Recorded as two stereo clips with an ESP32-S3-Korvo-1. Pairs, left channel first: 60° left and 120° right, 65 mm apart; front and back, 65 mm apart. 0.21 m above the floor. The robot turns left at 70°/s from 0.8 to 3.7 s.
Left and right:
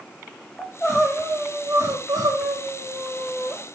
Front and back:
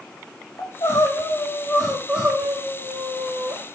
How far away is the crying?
About 6 m.